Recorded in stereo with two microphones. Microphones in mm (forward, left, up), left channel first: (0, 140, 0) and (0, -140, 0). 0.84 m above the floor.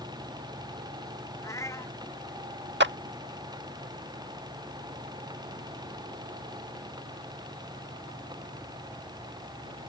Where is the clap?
40° right (ahead or behind).